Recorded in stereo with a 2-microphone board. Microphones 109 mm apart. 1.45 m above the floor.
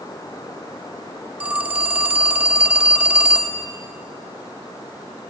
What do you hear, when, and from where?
1.4 s a phone ringing: 15° right (ahead or behind), 1.7 m